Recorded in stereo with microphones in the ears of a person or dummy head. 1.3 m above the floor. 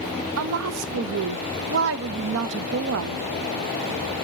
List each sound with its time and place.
0.4 s a woman speaking: 80° right, 0.8 m